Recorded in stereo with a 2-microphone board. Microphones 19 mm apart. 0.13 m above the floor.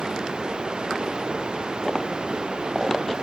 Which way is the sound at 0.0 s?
45° right (ahead or behind).